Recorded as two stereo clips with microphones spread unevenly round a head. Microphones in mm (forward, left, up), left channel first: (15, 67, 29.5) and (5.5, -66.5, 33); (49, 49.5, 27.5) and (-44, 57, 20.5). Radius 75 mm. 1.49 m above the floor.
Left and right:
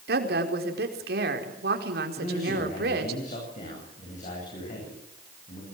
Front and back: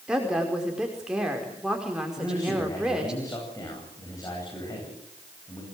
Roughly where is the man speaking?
Ahead left.